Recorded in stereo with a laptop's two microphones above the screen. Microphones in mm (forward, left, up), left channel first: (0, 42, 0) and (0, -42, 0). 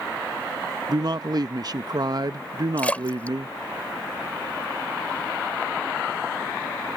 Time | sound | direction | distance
0.9 | a man speaking | 50° right (ahead or behind) | ?
2.8 | a splash | 15° left (ahead or behind) | ?